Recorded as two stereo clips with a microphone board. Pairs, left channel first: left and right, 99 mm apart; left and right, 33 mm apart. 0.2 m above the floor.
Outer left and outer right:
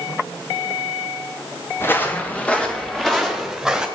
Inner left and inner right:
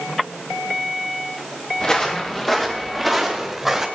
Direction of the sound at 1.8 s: 25° left (ahead or behind).